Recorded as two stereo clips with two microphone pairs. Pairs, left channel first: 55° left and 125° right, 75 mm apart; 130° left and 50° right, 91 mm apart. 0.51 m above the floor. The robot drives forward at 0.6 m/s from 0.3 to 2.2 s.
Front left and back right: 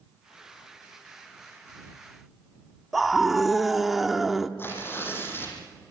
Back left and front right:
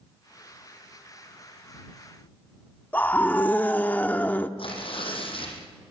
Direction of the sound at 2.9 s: 140° left.